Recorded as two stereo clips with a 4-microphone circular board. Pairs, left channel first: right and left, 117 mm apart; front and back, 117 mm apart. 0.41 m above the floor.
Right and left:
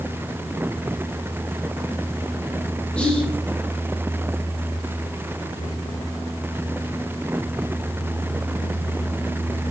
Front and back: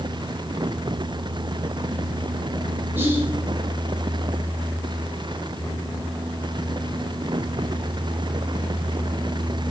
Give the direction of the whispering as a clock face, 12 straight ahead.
5 o'clock.